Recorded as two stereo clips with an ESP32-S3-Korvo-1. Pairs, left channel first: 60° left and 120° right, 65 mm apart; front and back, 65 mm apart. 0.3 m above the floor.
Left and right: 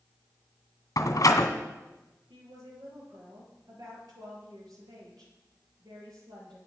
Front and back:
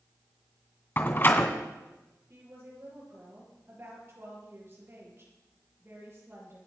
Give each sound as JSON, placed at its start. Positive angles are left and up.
{"t": 1.0, "sound": "a door slam", "azimuth_deg": 50, "distance_m": 2.0}
{"t": 2.3, "sound": "a woman speaking", "azimuth_deg": -125, "distance_m": 5.5}